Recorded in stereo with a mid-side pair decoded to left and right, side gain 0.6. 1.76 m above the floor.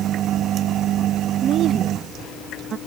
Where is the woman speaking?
45° right.